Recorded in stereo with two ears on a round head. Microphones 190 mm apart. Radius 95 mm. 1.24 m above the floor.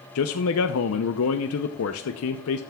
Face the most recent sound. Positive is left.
turn(degrees=75)  # may be behind; listen again after turning